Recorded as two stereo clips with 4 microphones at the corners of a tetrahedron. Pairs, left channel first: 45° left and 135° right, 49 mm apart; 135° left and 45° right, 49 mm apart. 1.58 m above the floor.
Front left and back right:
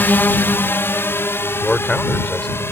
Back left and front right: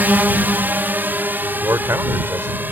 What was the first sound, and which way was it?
A drone, straight ahead.